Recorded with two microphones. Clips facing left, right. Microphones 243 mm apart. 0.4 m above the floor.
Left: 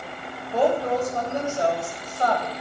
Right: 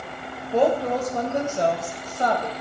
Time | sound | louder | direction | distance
0.5 | a woman speaking | right 1 dB | 25° right (ahead or behind) | 1.5 m